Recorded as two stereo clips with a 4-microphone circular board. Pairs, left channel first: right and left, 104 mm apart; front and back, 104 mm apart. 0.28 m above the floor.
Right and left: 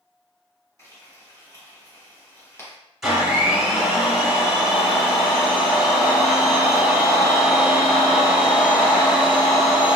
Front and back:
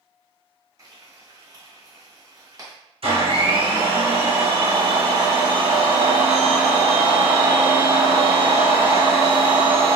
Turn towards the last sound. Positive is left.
turn(degrees=175)